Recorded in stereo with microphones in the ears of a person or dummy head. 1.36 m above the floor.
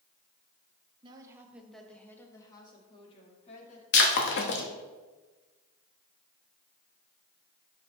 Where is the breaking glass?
60° left (ahead or behind), 1.3 m.